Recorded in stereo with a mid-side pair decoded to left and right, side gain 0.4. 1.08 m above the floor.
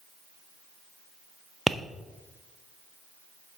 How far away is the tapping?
About 0.6 m.